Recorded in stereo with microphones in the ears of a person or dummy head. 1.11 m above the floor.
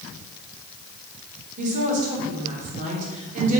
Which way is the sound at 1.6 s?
45° right (ahead or behind).